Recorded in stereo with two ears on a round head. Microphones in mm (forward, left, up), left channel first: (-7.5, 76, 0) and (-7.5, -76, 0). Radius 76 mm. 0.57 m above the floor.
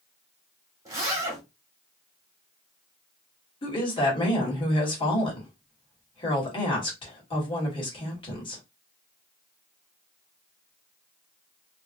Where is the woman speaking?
30° left (ahead or behind), 1.6 m.